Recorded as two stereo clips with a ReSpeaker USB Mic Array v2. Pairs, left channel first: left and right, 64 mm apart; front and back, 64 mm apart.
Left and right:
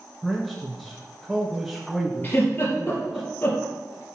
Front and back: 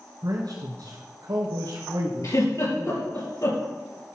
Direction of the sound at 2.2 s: 30° left.